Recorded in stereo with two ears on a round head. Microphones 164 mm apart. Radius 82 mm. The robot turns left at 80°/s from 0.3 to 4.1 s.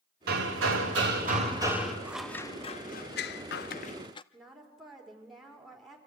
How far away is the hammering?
About 3 m.